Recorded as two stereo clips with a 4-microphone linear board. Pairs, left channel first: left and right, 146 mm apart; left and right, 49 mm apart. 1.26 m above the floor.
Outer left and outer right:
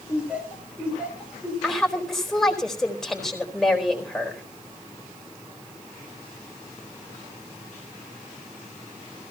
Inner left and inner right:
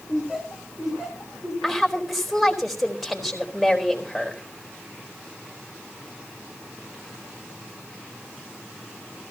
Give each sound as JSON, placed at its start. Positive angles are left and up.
{"t": 0.1, "sound": "laughter", "side_deg": -10, "distance_m": 6.0}
{"t": 1.6, "sound": "a woman speaking", "side_deg": 0, "distance_m": 4.0}